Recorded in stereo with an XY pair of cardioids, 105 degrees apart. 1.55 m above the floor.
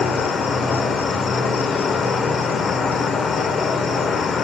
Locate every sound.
0.0 s an insect: 50° left, 1.0 m